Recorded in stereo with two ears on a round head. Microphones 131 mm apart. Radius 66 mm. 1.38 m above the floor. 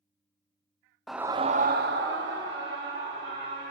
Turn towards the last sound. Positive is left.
turn(degrees=-80)